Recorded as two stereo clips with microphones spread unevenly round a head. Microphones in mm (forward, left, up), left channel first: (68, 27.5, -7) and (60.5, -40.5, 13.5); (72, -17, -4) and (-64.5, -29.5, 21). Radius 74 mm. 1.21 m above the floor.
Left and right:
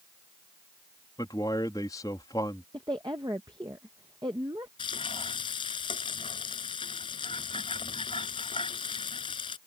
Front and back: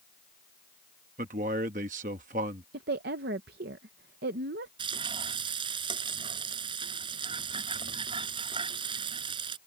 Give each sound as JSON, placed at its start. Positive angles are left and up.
{"t": 1.2, "sound": "a man speaking", "azimuth_deg": 140}
{"t": 2.7, "sound": "a woman speaking", "azimuth_deg": -165}
{"t": 4.8, "sound": "frying", "azimuth_deg": 125}